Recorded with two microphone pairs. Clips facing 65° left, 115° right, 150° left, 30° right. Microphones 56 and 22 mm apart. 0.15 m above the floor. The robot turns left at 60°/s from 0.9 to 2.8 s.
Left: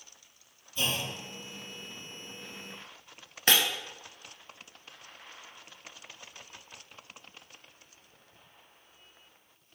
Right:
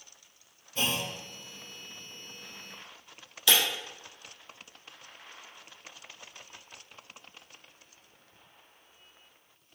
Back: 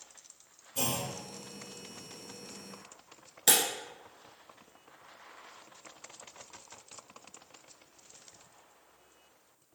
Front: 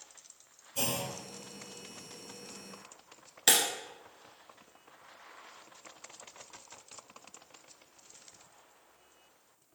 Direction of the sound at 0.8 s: 115° right.